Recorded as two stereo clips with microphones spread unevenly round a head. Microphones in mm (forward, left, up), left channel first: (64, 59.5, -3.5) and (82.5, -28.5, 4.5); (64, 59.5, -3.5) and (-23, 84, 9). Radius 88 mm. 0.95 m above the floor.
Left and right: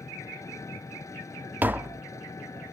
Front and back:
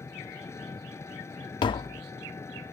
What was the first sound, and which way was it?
An engine running, 45° left.